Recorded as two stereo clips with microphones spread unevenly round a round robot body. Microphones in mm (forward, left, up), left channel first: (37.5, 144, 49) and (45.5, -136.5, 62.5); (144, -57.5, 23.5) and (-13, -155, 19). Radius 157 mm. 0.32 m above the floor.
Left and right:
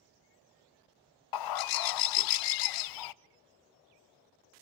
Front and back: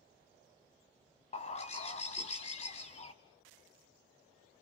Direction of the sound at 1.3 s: 105° left.